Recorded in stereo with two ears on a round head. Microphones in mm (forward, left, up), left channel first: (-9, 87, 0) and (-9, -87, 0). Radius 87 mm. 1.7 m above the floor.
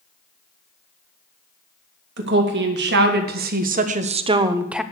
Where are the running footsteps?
I don't hear running footsteps.